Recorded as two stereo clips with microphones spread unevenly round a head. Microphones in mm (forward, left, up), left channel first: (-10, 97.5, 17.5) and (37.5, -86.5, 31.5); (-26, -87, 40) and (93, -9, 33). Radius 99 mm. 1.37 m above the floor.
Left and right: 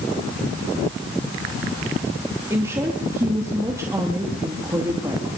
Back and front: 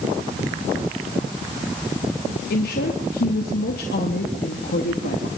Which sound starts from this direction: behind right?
A woman speaking, at 2.5 s.